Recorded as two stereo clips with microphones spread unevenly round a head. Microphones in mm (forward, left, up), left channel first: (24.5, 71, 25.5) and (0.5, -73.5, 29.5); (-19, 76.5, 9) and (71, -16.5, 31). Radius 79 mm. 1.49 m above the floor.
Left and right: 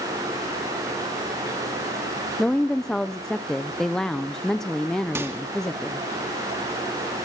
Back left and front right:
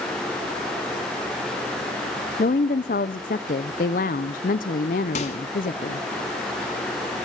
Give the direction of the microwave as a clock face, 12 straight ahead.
6 o'clock.